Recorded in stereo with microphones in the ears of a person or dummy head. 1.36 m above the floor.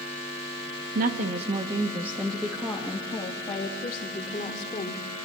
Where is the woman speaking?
55° right (ahead or behind), 1.5 m; by 5.0 s 35° left (ahead or behind), 3.5 m.